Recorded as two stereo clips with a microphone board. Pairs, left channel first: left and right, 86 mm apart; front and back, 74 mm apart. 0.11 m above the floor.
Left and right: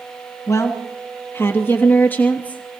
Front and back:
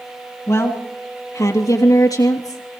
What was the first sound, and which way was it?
A woman speaking, 45° left.